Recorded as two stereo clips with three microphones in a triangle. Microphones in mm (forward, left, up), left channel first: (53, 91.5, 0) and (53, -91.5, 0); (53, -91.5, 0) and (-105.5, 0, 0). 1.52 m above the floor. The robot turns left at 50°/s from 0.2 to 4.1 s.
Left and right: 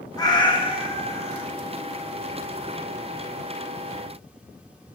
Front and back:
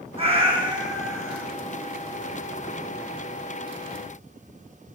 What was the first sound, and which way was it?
A cat meowing, 140° left.